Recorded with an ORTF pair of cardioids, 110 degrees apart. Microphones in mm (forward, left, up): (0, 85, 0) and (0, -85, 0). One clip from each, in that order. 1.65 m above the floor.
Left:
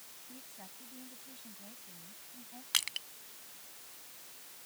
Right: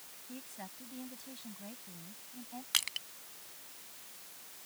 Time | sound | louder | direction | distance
0.3 | a woman speaking | right 7 dB | 40° right | ?
2.7 | crushing | even | 5° left | ?